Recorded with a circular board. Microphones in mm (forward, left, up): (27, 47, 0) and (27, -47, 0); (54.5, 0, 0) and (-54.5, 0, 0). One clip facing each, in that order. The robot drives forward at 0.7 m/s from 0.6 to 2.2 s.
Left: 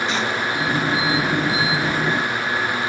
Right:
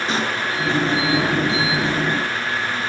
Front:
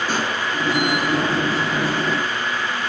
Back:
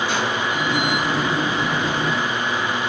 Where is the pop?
35° right, 2.5 m.